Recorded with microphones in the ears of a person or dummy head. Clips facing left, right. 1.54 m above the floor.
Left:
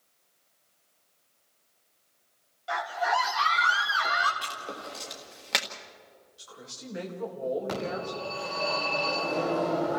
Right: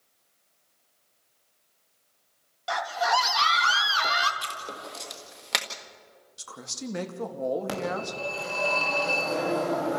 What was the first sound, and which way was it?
A scream, 60° right (ahead or behind).